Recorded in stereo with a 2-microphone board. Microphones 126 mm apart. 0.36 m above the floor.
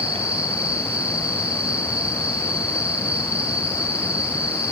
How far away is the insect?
About 3 m.